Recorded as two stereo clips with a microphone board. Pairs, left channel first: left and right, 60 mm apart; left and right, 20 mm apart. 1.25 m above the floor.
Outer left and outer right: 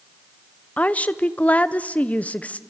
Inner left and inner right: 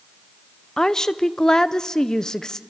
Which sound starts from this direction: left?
A woman speaking, at 0.8 s.